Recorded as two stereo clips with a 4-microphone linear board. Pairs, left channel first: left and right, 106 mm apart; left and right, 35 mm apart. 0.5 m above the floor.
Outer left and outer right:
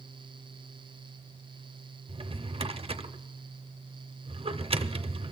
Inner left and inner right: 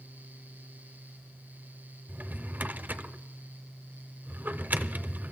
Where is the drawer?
60° right (ahead or behind), 0.6 m.